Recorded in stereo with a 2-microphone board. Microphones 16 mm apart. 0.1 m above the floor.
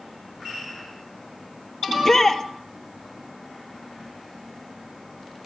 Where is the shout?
20° left (ahead or behind), 2.5 m.